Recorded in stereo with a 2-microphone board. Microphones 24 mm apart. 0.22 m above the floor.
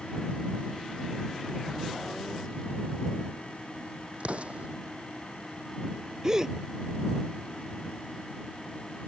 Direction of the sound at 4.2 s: 55° right (ahead or behind).